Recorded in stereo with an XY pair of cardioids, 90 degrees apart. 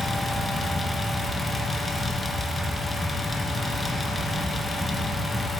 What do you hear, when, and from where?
0.0 s a fan: 30° left, 1.6 m